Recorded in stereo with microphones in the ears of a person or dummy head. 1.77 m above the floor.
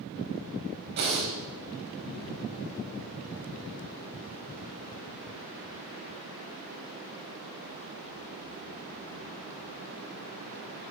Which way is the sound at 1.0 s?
55° right (ahead or behind).